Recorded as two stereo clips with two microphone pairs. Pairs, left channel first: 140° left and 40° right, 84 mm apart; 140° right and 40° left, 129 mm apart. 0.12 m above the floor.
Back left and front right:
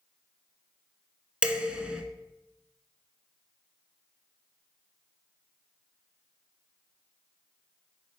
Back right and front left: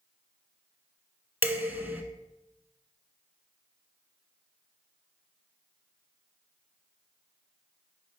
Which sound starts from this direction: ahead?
Dishes clattering, at 1.4 s.